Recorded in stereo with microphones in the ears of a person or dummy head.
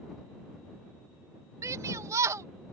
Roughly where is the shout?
Centre.